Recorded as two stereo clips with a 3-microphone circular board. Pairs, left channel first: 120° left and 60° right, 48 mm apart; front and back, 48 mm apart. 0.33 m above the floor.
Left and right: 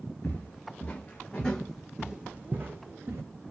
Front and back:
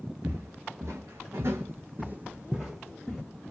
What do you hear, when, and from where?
0.2 s footsteps: 165° left, 1.5 m; by 3.2 s 85° right, 1.1 m